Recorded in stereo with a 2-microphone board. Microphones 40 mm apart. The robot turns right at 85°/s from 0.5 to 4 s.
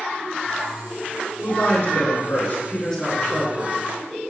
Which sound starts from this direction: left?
A woman speaking, at 1.4 s.